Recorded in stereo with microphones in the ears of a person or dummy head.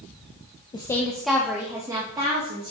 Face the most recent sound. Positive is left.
turn(degrees=-25)  # may be behind; listen again after turning